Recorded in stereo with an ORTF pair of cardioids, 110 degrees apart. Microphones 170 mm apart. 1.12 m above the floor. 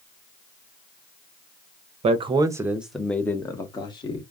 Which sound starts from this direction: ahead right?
A man speaking, at 2.0 s.